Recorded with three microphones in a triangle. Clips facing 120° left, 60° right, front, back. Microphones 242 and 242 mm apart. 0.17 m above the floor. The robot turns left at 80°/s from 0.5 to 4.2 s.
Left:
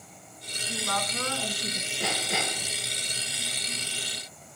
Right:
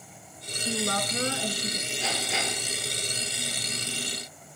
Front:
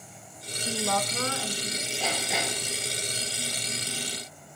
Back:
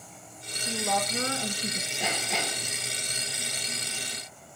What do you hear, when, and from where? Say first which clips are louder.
0.7 s a woman speaking: right 5 dB, front 1 dB; 75° right, 1.8 m; by 1.9 s 175° right, 1.8 m
2.0 s hammering: left 2 dB, front 1 dB; 110° left, 9 m; by 2.7 s 50° left, 9 m